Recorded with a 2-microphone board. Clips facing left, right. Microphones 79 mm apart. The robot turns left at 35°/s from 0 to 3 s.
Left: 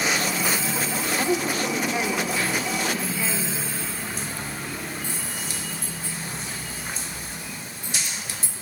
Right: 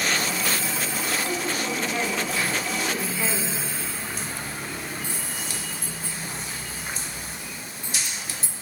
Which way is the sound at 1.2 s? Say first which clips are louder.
Left 4 dB; 45° left.